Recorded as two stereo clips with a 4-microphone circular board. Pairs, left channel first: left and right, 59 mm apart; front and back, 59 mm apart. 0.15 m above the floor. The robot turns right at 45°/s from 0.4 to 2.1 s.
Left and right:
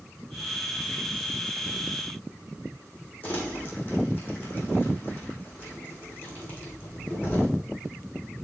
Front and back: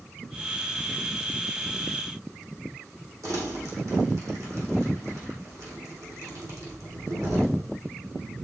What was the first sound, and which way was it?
Crumpling, 150° left.